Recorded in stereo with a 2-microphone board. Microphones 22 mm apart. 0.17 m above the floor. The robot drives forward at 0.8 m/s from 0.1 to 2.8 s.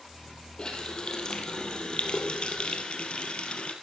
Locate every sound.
0.6 s a running tap: 35° left (ahead or behind), 4 m; by 3.7 s 55° left (ahead or behind), 3 m